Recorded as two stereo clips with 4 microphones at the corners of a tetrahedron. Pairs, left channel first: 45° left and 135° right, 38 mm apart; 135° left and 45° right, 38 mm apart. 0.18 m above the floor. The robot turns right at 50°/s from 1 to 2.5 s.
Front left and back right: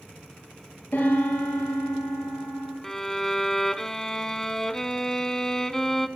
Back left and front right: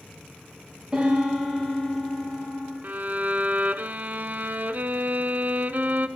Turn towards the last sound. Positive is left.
turn(degrees=-30)